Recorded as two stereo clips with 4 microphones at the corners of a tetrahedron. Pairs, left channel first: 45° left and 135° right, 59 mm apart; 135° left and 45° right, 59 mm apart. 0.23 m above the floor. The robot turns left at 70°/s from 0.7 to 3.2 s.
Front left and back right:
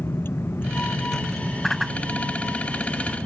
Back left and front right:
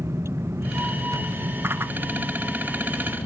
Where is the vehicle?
5° right; by 3.3 s straight behind.